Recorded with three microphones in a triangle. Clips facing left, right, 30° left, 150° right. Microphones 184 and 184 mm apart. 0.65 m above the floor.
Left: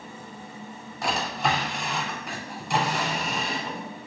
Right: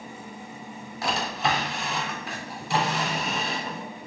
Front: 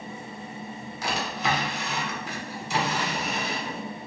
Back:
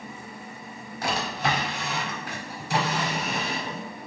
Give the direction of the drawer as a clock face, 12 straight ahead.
6 o'clock.